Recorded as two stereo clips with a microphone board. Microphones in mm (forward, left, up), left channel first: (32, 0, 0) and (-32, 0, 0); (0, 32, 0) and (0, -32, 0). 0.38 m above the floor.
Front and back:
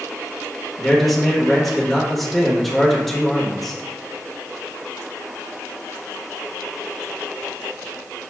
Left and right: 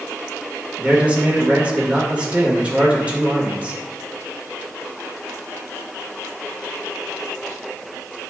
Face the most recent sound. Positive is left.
turn(degrees=-85)